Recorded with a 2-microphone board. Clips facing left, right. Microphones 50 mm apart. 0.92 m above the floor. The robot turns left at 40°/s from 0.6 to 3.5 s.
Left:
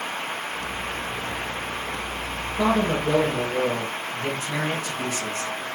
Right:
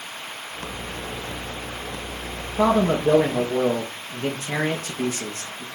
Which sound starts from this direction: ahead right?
A man speaking, at 2.6 s.